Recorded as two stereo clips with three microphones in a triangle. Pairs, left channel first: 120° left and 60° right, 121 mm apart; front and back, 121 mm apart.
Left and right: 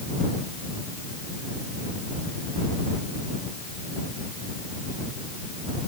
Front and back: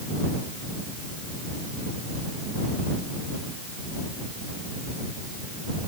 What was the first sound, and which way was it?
Only background noise.